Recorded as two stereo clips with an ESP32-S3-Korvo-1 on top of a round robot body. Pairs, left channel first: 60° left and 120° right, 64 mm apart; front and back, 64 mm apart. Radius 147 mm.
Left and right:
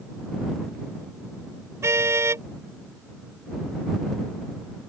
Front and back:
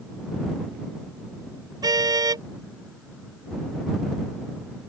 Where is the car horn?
165° right.